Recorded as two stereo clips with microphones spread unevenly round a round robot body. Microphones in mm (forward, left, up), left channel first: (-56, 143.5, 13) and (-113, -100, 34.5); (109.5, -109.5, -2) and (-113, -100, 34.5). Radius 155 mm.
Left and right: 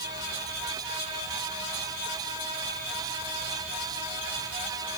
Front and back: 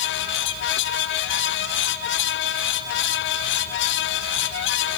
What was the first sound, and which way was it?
Only background noise.